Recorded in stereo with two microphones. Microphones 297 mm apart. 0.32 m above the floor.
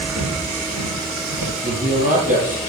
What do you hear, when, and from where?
0.1 s footsteps: 85° right, 3 m; by 1.5 s 70° right (ahead or behind), 3 m
1.6 s a man speaking: 30° right (ahead or behind), 8 m